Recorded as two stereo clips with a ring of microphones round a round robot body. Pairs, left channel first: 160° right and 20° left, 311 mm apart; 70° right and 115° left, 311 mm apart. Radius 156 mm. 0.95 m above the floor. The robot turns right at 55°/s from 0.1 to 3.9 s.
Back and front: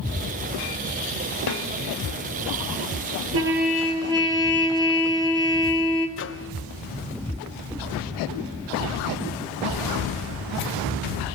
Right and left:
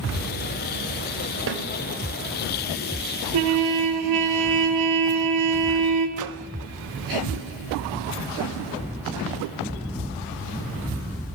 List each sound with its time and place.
1.5 s a snare drum: 165° left, 2.5 m; by 1.6 s 175° left, 2.5 m
3.3 s a trumpet: 70° left, 4 m; by 6.1 s 100° left, 4 m
6.2 s a microwave: 150° left, 1.1 m